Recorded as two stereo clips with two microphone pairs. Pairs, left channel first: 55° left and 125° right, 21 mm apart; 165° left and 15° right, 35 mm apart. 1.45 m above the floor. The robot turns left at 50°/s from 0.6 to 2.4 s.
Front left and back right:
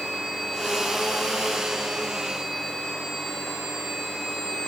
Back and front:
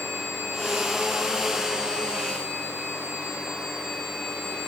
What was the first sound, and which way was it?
Only background noise.